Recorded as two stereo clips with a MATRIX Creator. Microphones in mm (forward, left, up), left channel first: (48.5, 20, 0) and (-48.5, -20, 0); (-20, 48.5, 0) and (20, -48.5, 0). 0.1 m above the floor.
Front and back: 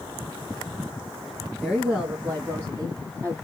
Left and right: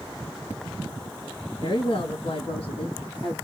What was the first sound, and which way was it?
A woman speaking, 115° left.